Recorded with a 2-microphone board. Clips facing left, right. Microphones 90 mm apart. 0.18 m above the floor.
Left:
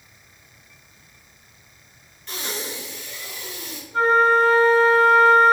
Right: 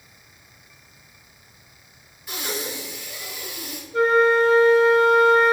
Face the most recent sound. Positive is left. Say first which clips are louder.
# even
turn(degrees=40)  # may be behind; listen again after turning